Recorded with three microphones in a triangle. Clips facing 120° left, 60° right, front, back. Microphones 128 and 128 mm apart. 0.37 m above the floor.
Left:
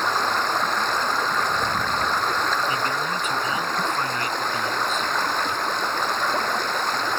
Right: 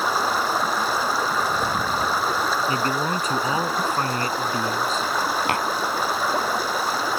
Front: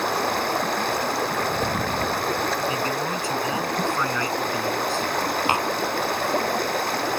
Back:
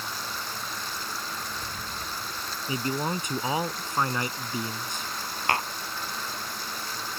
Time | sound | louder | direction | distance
0.0 | running water | right 1 dB, front 13 dB | 25° left | ?
2.7 | a man speaking | right 2 dB, front 4 dB | 110° right | ?
5.5 | tapping | right 3 dB, front 1 dB | 70° right | ?